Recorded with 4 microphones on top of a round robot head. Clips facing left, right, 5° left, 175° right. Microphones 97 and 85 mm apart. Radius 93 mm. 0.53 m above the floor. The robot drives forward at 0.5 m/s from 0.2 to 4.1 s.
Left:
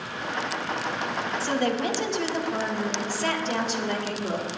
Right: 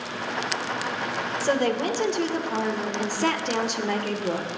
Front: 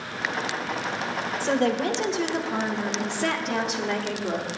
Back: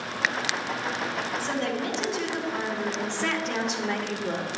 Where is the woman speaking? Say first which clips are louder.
Right 3 dB, front 9 dB; 45° right, 2 m; by 4.5 s 90° right, 1.7 m.